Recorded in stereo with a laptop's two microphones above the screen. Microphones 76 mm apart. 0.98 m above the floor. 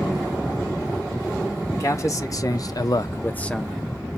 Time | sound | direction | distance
1.7 | a man speaking | 40° left (ahead or behind) | 1.3 m